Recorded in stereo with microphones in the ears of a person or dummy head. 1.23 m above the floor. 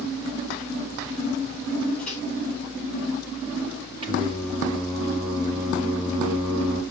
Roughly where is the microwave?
Centre.